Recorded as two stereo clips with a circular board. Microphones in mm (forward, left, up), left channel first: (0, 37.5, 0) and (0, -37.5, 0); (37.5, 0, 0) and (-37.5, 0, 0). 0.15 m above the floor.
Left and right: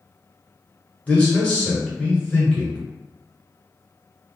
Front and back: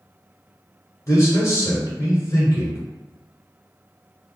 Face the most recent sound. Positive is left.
turn(degrees=25)